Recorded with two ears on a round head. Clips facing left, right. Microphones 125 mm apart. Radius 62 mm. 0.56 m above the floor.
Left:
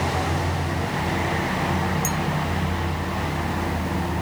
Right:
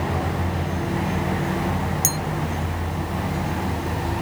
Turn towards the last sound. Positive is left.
turn(degrees=-45)  # may be behind; listen again after turning